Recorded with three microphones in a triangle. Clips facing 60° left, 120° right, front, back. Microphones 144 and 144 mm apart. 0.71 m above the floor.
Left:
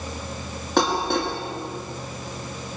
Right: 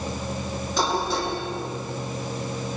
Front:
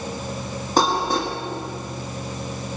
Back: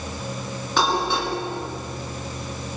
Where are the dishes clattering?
50° left, 5 m.